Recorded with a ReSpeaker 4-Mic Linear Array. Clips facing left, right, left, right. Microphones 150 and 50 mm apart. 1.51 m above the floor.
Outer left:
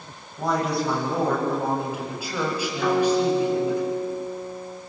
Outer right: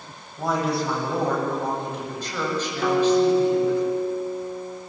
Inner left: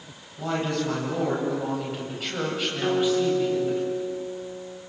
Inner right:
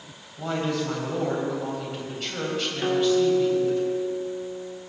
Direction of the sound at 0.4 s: 5° right (ahead or behind).